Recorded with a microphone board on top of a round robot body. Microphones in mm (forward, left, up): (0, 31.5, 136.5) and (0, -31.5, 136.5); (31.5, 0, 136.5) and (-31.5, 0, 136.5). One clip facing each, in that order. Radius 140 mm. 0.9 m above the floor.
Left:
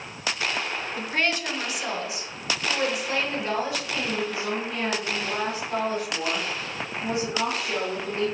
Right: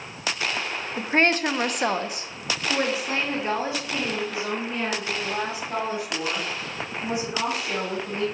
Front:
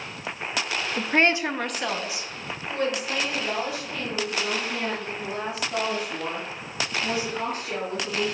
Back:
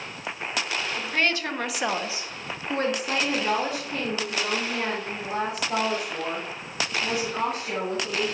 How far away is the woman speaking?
About 0.8 m.